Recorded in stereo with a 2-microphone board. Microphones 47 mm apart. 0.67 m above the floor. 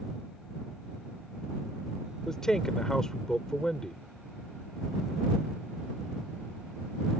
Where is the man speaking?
15° left (ahead or behind).